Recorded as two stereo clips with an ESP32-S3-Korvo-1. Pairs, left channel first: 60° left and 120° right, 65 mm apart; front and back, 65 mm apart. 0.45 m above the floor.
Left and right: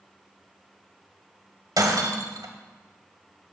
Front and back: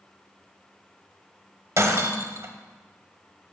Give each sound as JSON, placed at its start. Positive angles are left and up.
{"t": 1.8, "sound": "breaking glass", "azimuth_deg": -140, "distance_m": 1.5}